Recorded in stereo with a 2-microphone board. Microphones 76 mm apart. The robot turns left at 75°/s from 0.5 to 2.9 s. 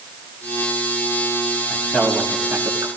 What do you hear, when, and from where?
1.7 s a man speaking: 30° left (ahead or behind), 4.5 m; by 2.9 s 55° right (ahead or behind), 4.5 m